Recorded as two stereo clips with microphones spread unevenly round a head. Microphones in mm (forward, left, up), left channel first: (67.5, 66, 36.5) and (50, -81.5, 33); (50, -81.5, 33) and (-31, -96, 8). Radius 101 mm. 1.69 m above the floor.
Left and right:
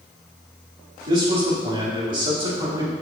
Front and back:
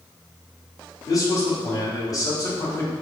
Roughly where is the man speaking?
Ahead right.